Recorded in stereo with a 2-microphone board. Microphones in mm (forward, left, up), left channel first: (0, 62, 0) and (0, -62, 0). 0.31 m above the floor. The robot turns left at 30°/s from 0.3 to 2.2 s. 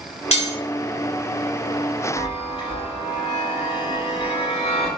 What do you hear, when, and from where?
0.3 s cutlery clinking: 65° left (ahead or behind), 1.4 m; by 0.5 s 60° left (ahead or behind), 1.4 m
2.2 s a chime: 55° left (ahead or behind), 0.7 m; by 4.9 s 50° left (ahead or behind), 0.7 m